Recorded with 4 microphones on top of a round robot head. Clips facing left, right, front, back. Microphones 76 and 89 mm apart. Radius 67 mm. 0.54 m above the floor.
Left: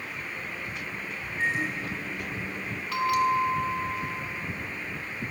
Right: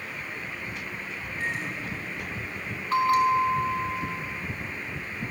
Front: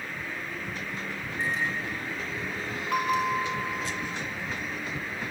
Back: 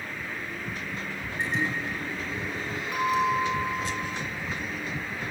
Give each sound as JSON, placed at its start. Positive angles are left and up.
{"t": 1.4, "sound": "a microwave", "azimuth_deg": 160, "distance_m": 7.0}
{"t": 2.9, "sound": "a bell", "azimuth_deg": -35, "distance_m": 4.0}